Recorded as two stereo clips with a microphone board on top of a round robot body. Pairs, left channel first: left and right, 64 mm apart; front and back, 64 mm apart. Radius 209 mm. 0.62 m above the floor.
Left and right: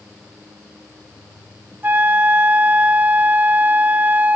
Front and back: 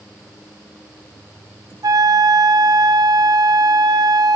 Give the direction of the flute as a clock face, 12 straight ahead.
5 o'clock.